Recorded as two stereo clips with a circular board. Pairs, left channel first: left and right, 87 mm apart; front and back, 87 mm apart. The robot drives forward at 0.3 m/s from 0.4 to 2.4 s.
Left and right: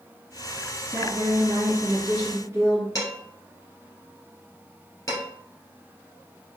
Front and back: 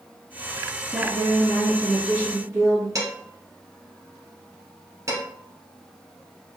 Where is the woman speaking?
130° right, 1.7 m; by 2.9 s 145° right, 1.9 m.